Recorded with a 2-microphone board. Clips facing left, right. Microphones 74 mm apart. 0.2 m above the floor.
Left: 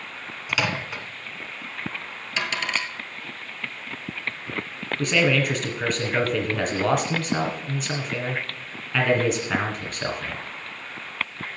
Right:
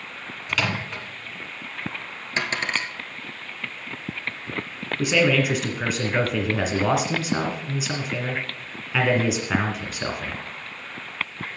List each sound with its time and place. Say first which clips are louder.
0.5 s a microwave: even; 10° left (ahead or behind), 1.5 m
2.4 s a dropped coin: right 1 dB; 35° right (ahead or behind), 1.6 m
5.0 s a man speaking: right 1 dB; 5° right (ahead or behind), 1.8 m